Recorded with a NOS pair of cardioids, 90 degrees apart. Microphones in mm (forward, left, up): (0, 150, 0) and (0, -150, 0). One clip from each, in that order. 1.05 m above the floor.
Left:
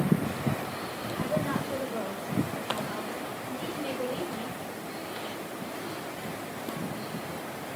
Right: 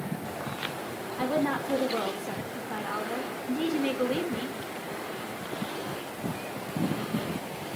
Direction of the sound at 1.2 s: 60° right.